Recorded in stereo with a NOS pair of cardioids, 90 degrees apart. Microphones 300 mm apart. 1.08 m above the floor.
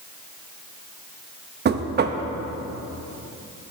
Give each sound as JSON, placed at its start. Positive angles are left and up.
{"t": 1.6, "sound": "knocking", "azimuth_deg": -35, "distance_m": 0.6}